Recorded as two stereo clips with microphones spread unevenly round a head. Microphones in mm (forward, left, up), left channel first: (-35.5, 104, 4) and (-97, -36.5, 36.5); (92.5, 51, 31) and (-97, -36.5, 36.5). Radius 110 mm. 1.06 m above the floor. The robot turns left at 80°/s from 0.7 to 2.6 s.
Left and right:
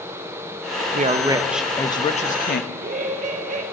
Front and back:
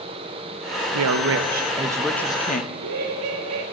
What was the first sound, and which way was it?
A woman speaking, 155° right.